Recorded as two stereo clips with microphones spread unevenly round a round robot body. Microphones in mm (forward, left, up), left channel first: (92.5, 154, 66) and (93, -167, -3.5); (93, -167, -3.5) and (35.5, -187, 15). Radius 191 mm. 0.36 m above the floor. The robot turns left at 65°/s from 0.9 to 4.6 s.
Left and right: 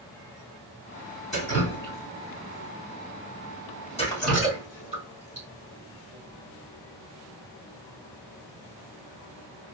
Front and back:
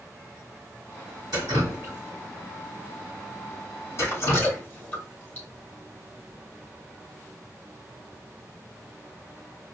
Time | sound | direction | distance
1.3 | dripping | 175° right | 2.5 m